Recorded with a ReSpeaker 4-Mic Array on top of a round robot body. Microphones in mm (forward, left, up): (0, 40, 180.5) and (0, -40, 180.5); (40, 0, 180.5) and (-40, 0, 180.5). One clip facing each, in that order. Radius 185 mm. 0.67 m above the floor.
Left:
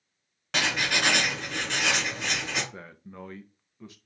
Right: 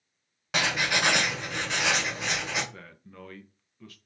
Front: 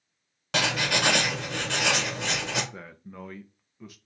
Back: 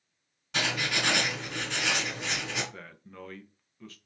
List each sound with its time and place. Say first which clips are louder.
0.5 s writing: right 1 dB, front 4 dB; 5° right, 1.9 m
2.7 s a man speaking: left 4 dB, front 3 dB; 55° left, 0.8 m